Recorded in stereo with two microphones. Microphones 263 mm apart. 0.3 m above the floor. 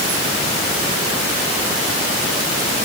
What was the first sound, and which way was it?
Only background noise.